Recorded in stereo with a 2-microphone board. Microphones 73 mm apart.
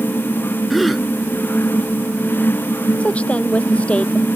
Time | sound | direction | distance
0.7 | a gasp | centre (ahead or behind) | ?
3.0 | a woman speaking | 20° left (ahead or behind) | ?